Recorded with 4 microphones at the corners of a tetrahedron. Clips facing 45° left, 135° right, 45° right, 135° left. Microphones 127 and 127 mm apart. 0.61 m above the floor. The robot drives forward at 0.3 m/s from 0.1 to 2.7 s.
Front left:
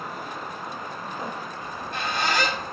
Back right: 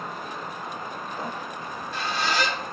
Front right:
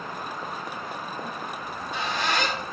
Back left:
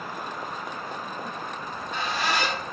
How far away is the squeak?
About 0.8 m.